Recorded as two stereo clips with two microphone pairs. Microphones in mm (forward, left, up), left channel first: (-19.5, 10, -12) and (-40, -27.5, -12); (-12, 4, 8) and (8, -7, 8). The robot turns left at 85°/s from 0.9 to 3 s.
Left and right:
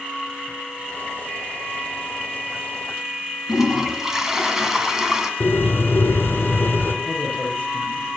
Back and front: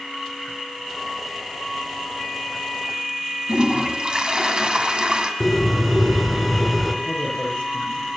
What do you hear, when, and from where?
3.5 s a toilet flushing: 45° right, 2 m
5.4 s a bird: 55° left, 1.8 m
7.0 s a man speaking: 160° right, 7 m